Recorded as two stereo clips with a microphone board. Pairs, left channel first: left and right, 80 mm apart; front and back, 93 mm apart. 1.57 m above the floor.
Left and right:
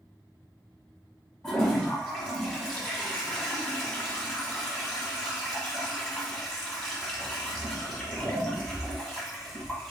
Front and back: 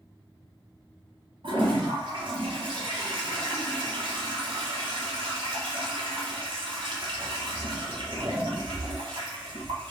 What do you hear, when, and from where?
1.4 s a toilet flushing: 170° left, 1.0 m